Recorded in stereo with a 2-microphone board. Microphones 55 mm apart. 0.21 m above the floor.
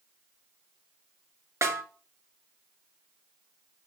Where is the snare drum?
65° right (ahead or behind), 0.7 m.